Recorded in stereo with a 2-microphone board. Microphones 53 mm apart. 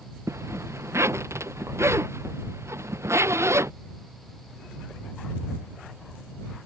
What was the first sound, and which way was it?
A zipper, 65° right (ahead or behind).